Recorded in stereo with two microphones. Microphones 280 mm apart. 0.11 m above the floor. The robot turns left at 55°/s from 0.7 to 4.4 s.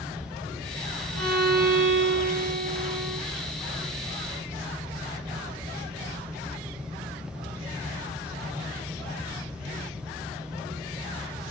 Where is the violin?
75° right, 2 m; by 3.2 s 170° left, 2 m.